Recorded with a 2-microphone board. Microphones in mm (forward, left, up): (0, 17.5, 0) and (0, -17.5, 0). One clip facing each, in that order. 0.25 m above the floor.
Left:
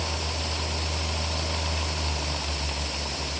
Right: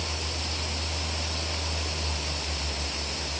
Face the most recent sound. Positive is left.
No sound to turn to.